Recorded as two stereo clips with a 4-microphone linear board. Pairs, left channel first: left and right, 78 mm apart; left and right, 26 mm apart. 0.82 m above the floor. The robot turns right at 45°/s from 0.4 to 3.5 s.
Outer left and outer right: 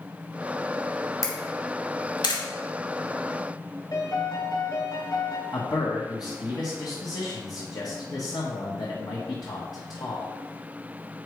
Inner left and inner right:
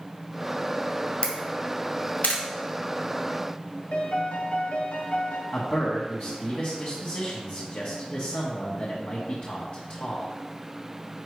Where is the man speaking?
55° left (ahead or behind), 1.3 m.